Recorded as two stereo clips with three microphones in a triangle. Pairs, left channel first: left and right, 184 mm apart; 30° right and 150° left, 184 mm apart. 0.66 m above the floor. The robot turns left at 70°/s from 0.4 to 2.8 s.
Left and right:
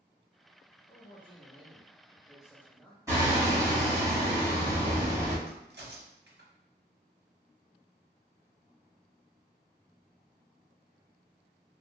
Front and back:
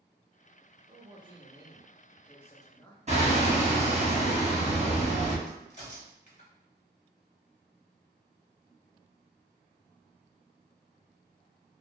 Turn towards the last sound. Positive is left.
turn(degrees=-80)